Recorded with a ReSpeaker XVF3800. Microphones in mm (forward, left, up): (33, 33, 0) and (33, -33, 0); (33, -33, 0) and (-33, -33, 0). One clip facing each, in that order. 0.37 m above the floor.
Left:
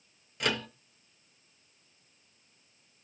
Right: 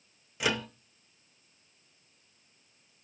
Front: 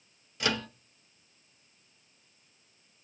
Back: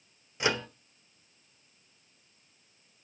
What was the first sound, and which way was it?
A microwave, 160° right.